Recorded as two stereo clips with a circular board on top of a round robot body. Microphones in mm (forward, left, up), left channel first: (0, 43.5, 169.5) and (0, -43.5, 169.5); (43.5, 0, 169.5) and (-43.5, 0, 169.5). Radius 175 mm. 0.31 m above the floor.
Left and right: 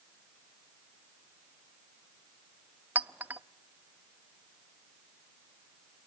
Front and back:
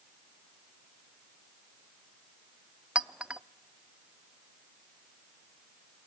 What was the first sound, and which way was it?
A clink, 120° right.